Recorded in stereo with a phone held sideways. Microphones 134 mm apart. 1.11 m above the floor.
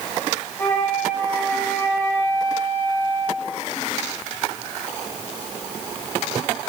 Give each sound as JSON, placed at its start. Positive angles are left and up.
{"t": 0.6, "sound": "a flute", "side_deg": 20, "distance_m": 5.0}